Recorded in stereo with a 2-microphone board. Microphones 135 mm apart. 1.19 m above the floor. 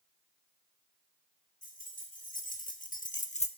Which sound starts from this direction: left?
Keys jangling, at 1.6 s.